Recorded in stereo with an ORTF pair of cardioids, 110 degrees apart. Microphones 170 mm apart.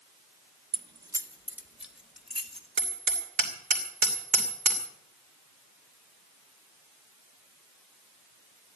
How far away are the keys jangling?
About 0.9 m.